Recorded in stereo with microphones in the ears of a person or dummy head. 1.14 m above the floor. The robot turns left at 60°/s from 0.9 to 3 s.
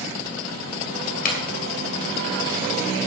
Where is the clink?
50° left (ahead or behind), 3 m; by 3.1 s 55° right (ahead or behind), 3 m.